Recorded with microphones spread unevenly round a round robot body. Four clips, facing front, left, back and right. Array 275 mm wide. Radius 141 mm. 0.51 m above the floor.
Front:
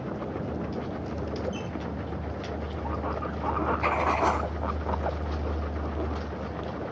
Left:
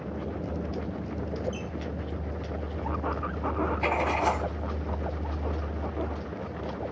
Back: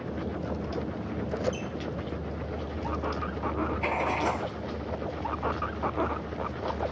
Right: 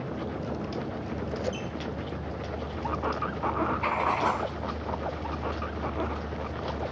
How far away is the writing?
About 1.3 m.